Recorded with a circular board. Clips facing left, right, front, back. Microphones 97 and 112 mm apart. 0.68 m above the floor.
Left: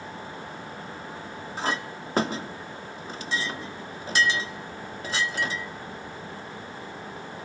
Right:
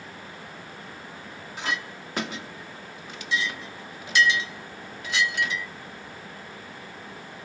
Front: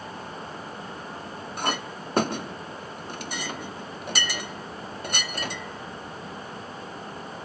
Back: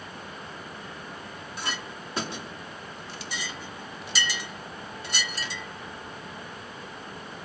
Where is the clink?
35° left, 0.8 m.